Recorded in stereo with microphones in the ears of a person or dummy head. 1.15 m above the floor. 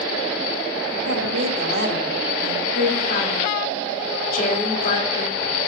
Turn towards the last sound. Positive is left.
turn(degrees=50)  # may be behind; listen again after turning